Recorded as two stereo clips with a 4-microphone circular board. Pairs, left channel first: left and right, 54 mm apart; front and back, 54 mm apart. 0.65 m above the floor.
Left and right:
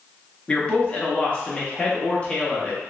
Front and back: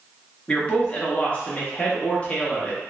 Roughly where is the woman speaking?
Ahead left.